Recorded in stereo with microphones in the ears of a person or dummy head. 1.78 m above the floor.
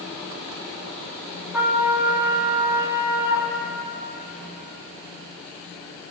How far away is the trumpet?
About 4 m.